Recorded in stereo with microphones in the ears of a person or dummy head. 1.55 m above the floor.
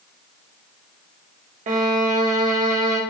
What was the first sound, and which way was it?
A violin, 45° right (ahead or behind).